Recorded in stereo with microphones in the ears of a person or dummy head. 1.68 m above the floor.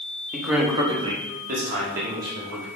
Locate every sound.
0.3 s a man speaking: centre (ahead or behind), 0.6 m; by 2.6 s 65° right (ahead or behind), 1.3 m